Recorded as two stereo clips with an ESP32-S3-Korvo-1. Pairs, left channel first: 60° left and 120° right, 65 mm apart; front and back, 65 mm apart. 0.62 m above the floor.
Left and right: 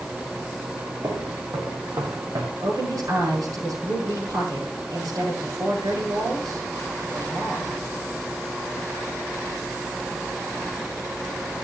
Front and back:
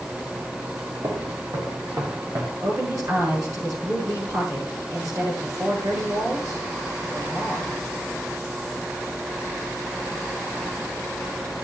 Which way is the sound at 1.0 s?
155° right.